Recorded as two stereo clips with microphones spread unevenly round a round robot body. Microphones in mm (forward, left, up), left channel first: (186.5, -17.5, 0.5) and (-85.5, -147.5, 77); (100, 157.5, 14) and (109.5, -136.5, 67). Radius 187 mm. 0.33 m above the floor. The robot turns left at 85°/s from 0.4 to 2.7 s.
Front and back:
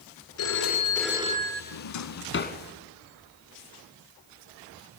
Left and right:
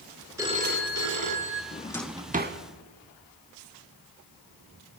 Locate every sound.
0.4 s a phone ringing: 10° right, 3.5 m; by 1.6 s 110° right, 3.5 m
1.7 s a drawer: 30° left, 1.7 m; by 2.6 s 40° right, 1.7 m